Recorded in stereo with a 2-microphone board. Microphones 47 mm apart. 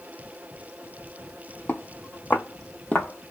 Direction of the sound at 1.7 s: 45° left (ahead or behind).